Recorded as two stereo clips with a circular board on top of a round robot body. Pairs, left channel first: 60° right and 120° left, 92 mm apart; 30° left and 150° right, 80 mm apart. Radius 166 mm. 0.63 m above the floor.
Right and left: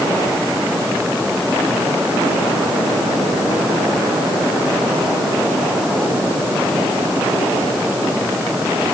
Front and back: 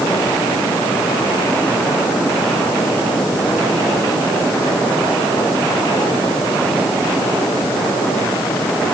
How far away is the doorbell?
I don't hear a doorbell.